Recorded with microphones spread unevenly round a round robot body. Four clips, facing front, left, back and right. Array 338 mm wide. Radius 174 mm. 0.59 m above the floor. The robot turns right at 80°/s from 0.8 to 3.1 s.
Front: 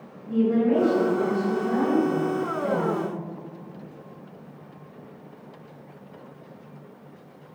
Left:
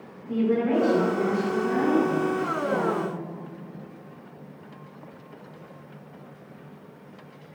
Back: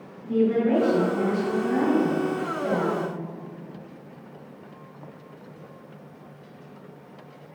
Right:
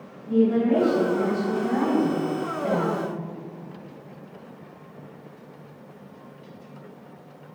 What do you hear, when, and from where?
0.2 s a woman speaking: 140° left, 4 m; by 3.0 s 40° right, 4 m